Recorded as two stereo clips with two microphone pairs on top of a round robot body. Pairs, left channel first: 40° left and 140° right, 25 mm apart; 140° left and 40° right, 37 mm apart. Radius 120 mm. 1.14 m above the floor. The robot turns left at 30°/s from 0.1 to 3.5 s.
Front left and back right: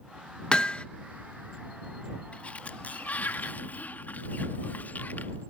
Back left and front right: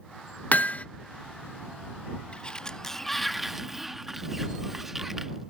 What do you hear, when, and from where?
0.5 s hammering: 95° left; by 0.8 s 85° left
2.3 s a sliding door: 80° left; by 5.5 s 45° left